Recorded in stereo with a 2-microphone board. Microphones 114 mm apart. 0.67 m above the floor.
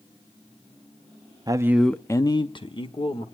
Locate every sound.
1.5 s a man speaking: 35° right (ahead or behind), 0.7 m; by 3.2 s 50° left (ahead or behind), 1.9 m